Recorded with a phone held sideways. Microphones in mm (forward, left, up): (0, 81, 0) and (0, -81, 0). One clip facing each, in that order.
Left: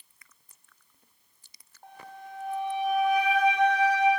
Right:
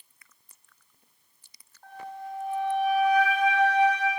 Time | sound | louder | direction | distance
1.8 | a flute | right 6 dB | 20° left (ahead or behind) | 5.5 m